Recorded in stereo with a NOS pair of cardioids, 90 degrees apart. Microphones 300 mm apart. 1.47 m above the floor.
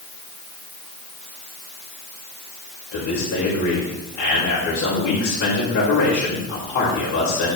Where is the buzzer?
I don't hear a buzzer.